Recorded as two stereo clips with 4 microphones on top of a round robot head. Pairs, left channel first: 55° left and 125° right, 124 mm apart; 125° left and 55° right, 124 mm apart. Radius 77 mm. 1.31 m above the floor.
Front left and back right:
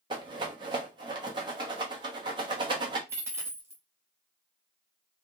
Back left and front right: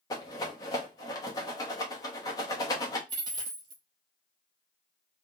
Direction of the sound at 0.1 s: 175° right.